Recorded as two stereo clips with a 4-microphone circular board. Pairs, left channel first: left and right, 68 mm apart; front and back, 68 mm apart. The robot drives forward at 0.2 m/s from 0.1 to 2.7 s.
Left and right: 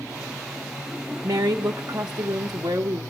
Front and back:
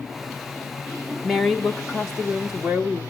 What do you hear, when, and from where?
1.2 s a woman speaking: 90° right, 0.9 m; by 3.0 s 110° right, 0.9 m